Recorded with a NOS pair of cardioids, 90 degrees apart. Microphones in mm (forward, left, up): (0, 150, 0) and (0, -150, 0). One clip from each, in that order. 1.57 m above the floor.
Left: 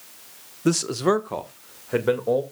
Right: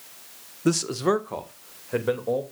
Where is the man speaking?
5° left, 0.9 m; by 2.4 s 25° left, 2.5 m.